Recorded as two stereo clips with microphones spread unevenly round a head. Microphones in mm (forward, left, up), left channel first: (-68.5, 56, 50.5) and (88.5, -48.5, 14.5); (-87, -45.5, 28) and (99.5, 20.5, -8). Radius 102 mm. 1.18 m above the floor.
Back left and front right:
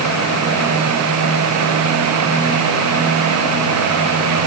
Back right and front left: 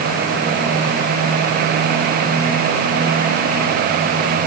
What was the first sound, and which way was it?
Only background noise.